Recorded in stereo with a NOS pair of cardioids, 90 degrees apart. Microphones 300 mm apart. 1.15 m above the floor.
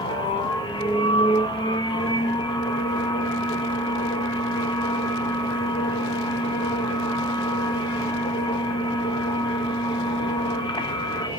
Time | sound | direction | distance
0.0 | a machine running | 15° left | 0.8 m